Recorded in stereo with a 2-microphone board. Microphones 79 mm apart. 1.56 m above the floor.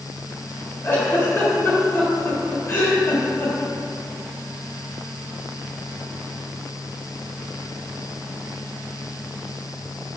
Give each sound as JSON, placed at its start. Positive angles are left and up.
{"t": 0.8, "sound": "a giggle", "side_deg": 30, "distance_m": 1.4}